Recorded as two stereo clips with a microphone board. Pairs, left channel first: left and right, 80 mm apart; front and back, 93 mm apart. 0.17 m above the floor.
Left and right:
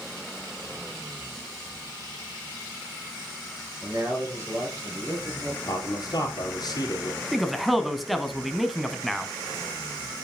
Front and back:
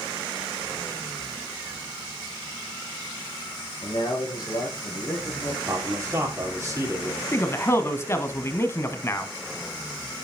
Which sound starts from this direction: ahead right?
A man speaking, at 3.8 s.